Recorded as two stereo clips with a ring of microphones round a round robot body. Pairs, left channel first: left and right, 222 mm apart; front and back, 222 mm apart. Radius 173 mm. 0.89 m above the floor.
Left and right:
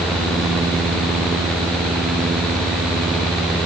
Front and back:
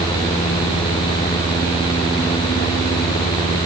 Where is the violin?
No violin in this recording.